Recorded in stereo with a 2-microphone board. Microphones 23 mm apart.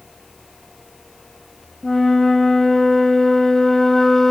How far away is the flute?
About 1.5 m.